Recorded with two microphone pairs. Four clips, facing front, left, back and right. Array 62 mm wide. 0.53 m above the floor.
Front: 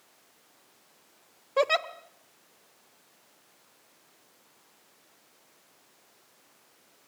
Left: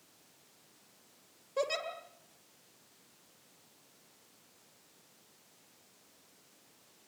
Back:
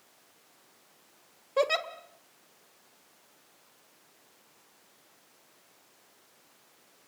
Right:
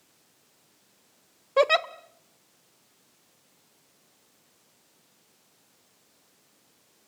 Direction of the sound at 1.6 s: 70° right.